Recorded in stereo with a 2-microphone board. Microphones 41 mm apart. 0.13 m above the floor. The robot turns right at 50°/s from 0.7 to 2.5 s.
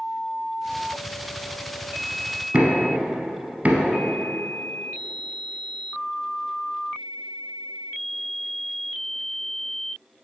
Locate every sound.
2.5 s knocking: 35° right (ahead or behind), 1.0 m